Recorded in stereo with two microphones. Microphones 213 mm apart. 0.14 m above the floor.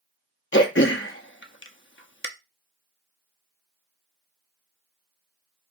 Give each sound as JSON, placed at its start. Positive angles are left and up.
{"t": 0.5, "sound": "throat clearing", "side_deg": 65, "distance_m": 0.6}